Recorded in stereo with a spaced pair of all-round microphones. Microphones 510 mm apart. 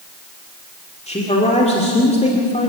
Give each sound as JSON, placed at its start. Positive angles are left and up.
{"t": 1.1, "sound": "a man speaking", "side_deg": 10, "distance_m": 2.5}